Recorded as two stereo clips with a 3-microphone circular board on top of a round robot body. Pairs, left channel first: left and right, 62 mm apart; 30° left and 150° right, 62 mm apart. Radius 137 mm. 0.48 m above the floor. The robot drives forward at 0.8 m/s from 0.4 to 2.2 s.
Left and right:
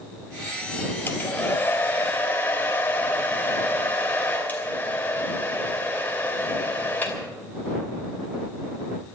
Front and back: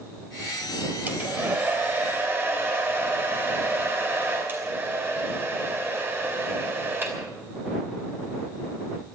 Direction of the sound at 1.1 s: 145° left.